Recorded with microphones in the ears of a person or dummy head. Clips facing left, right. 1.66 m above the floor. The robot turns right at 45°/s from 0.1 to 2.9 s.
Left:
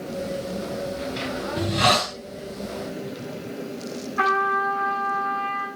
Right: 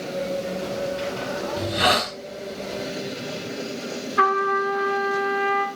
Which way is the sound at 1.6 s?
10° right (ahead or behind).